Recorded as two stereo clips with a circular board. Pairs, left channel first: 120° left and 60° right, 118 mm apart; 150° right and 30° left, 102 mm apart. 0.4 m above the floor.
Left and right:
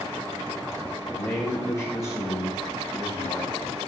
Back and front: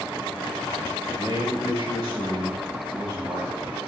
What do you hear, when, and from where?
1.1 s a man speaking: 55° left, 3.5 m; by 3.8 s 80° left, 3.5 m